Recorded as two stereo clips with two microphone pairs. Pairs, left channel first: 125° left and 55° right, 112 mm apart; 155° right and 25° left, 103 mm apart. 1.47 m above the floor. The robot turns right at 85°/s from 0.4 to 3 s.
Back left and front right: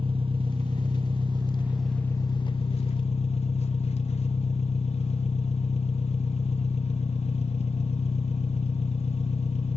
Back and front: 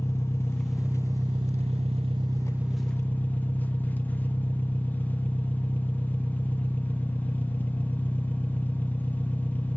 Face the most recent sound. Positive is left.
turn(degrees=135)